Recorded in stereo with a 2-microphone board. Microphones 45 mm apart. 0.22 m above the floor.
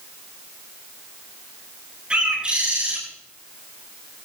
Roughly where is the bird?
Right.